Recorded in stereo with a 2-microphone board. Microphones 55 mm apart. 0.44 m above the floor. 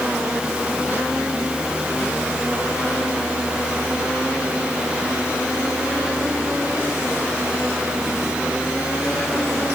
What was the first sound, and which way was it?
Only background noise.